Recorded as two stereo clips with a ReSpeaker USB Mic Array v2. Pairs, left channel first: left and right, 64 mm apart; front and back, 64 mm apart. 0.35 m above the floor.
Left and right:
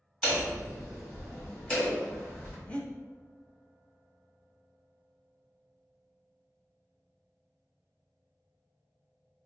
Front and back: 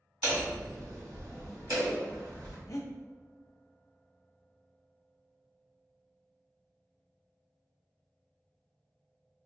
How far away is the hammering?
About 1.9 m.